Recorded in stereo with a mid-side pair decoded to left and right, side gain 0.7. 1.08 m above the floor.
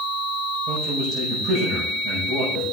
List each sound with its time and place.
0.7 s a man speaking: 50° right, 5 m